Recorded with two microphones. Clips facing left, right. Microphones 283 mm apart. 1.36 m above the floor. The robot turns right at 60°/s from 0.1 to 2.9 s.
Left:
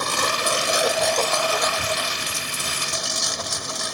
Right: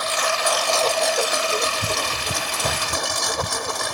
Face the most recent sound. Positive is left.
turn(degrees=-70)